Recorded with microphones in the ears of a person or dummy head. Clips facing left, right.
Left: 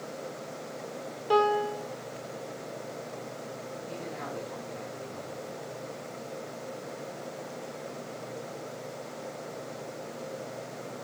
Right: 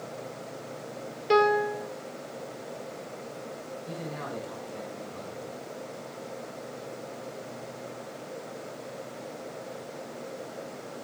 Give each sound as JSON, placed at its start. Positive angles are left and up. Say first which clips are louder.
{"t": 1.3, "sound": "a piano", "louder": "right 2 dB", "side_deg": -30, "distance_m": 3.0}
{"t": 3.9, "sound": "a man speaking", "louder": "right 2 dB", "side_deg": -65, "distance_m": 7.0}